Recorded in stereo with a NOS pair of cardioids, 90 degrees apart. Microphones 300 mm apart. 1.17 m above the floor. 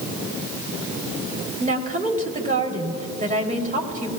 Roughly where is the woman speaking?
Ahead right.